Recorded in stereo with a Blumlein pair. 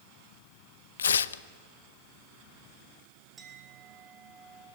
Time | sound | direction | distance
1.0 | tearing paper | 70° left | 0.5 m
3.4 | a clink | 15° right | 3.5 m